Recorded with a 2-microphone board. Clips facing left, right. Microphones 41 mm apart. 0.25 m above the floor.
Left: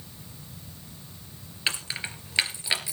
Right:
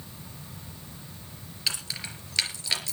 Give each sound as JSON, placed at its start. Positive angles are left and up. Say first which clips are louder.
{"t": 1.7, "sound": "keys jangling", "louder": "left 3 dB", "side_deg": 35, "distance_m": 3.5}